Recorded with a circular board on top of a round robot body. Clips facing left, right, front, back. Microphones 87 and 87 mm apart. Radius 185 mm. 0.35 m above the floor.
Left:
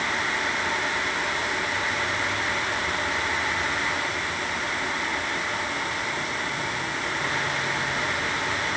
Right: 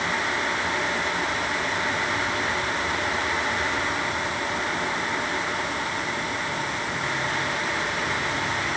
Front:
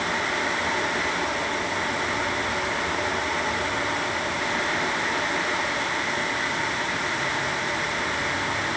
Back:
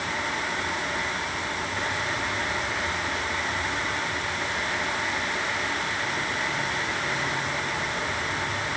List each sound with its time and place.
Only background noise.